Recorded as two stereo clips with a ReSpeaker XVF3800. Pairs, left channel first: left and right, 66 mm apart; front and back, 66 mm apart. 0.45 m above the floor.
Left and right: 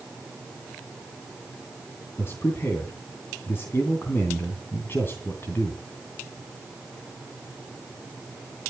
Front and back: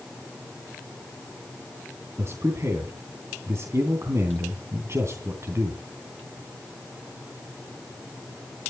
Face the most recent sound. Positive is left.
turn(degrees=140)